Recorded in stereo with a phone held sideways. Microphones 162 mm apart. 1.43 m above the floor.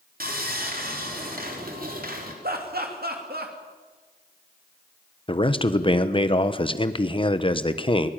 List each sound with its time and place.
0.2 s sawing: 65° right (ahead or behind), 3.5 m
2.4 s laughter: 75° right (ahead or behind), 2.5 m
5.3 s a man speaking: 35° left (ahead or behind), 1.1 m